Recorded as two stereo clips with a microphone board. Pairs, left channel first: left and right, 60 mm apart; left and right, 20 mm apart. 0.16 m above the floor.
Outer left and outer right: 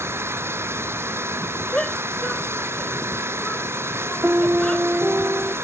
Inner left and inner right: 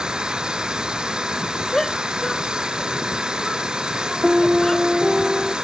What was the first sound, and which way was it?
An engine running, 45° right (ahead or behind).